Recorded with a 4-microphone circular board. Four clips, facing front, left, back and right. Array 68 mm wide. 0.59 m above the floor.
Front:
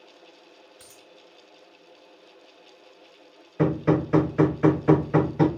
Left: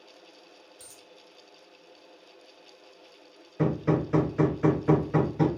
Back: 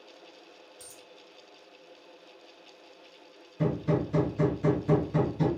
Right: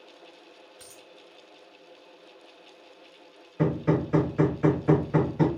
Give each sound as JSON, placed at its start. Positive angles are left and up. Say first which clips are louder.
{"t": 0.8, "sound": "a dropped coin", "louder": "right 3 dB, even", "azimuth_deg": -45, "distance_m": 2.0}
{"t": 3.6, "sound": "hammering", "louder": "right 1 dB, front 6 dB", "azimuth_deg": -5, "distance_m": 1.1}